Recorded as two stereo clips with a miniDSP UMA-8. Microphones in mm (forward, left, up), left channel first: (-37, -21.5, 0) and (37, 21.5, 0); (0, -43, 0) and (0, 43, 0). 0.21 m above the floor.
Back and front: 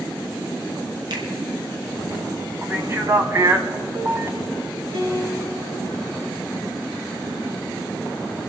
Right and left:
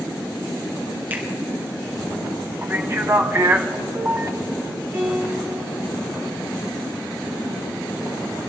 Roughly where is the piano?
Ahead left.